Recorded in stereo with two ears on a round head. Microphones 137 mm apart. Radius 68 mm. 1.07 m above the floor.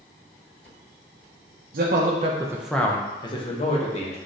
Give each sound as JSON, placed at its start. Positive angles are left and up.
{"t": 1.7, "sound": "a man speaking", "side_deg": -65, "distance_m": 0.7}